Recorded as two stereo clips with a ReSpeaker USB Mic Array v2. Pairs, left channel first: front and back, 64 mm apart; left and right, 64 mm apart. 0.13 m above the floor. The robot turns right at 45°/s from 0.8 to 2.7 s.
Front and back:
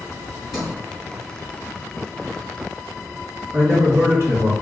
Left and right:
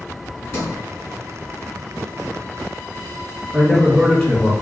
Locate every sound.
0.5 s a sliding door: 80° left, 1.8 m
3.5 s a man speaking: 160° left, 1.7 m